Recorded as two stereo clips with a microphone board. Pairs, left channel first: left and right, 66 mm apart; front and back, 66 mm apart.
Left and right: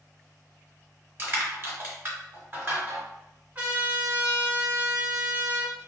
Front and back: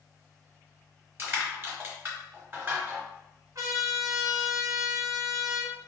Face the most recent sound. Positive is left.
turn(degrees=-150)